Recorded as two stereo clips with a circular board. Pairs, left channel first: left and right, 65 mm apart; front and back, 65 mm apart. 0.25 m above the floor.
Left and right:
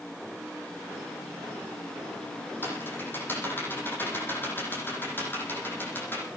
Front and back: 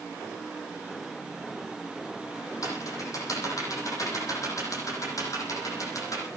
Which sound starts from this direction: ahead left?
Typing on a keyboard, at 2.6 s.